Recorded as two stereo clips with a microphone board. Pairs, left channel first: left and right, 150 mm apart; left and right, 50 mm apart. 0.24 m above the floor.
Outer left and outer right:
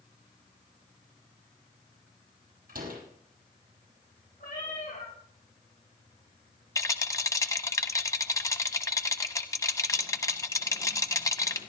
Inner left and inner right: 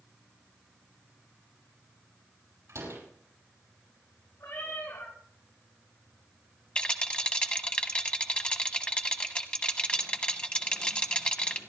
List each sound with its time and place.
2.7 s a door slam: 75° right (ahead or behind), 6 m
4.4 s a cat meowing: 70° left (ahead or behind), 7.5 m
6.8 s a rattle: 20° left (ahead or behind), 0.9 m